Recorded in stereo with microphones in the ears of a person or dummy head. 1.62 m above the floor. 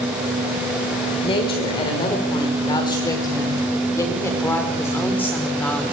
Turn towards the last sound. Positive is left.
turn(degrees=5)  # may be behind; listen again after turning